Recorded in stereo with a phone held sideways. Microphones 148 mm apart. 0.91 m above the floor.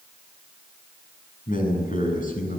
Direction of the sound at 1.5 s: 65° left (ahead or behind).